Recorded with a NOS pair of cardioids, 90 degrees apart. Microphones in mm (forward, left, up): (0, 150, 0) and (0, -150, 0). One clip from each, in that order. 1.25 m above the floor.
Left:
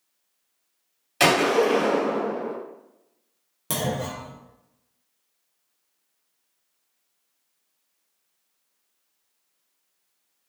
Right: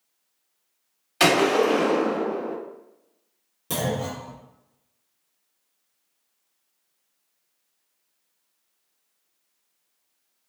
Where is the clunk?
30° left, 0.9 m.